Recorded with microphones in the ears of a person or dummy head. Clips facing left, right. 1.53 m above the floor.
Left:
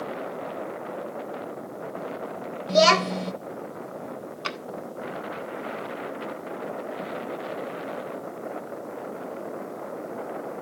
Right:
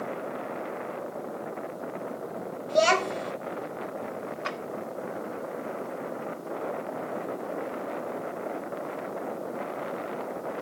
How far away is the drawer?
About 2 m.